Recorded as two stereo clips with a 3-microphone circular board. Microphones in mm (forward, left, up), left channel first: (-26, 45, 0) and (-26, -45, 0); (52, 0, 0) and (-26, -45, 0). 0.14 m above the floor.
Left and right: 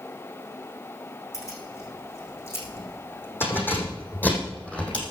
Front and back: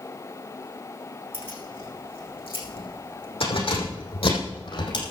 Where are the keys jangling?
35° left, 6 m; by 5.0 s 10° left, 4 m.